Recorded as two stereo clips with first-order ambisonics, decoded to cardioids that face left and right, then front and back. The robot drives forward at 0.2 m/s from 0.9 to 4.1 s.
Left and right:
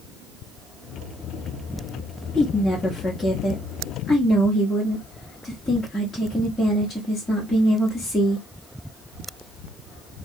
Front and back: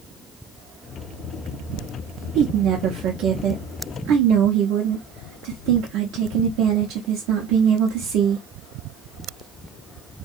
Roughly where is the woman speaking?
Behind.